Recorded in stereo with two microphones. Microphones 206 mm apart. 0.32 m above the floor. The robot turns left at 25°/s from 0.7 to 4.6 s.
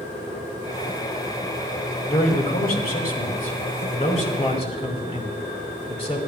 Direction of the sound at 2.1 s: 105° left.